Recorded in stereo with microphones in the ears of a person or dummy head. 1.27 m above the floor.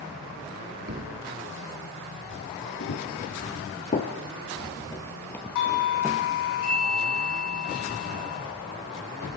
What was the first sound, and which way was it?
A thud, 55° right (ahead or behind).